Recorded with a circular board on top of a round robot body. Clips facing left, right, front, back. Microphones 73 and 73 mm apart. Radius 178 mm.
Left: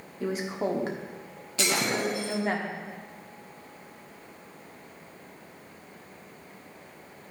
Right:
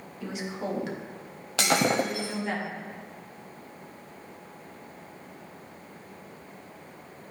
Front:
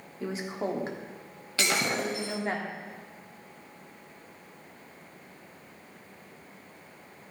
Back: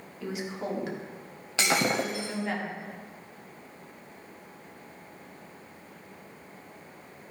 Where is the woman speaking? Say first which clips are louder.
Left 5 dB, front 2 dB; 50° left, 2 m.